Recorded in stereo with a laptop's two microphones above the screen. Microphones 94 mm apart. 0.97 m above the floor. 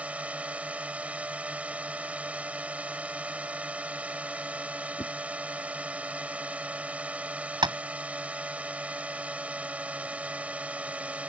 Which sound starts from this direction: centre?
A drone, at 0.0 s.